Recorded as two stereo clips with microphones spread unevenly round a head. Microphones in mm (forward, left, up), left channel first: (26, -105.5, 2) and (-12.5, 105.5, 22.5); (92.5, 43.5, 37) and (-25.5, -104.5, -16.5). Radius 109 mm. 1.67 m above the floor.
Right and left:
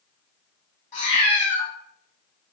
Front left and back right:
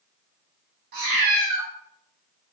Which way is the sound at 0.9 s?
115° right.